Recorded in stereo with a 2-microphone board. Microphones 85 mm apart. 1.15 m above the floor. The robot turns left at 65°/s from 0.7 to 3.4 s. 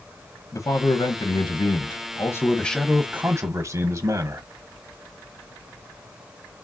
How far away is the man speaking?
About 0.9 m.